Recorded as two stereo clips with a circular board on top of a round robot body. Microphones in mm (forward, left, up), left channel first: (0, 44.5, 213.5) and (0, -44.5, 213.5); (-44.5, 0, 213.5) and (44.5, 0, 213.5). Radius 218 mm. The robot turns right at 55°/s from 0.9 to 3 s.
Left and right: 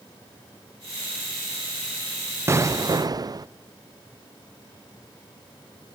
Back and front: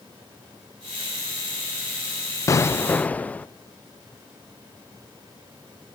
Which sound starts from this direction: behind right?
An explosion, at 2.5 s.